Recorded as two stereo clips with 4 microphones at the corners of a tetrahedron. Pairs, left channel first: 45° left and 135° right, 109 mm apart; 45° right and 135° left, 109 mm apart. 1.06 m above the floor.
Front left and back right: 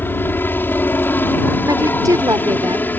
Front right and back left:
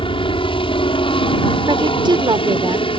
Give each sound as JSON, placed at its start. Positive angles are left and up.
{"t": 0.0, "sound": "a helicopter", "azimuth_deg": -25}
{"t": 1.7, "sound": "a woman speaking", "azimuth_deg": 175}